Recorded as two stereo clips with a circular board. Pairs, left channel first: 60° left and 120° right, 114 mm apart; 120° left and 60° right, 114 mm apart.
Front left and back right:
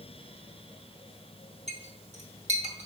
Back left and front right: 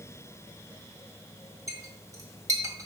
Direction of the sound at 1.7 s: 120° right.